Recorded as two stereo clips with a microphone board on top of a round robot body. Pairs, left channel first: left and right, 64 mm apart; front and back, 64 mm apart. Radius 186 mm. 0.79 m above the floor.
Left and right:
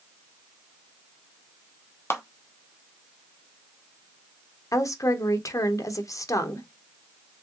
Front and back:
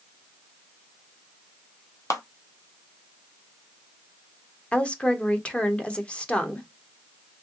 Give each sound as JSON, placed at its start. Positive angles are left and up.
{"t": 2.1, "sound": "a clap", "azimuth_deg": 40, "distance_m": 1.0}
{"t": 4.7, "sound": "a woman speaking", "azimuth_deg": 70, "distance_m": 1.1}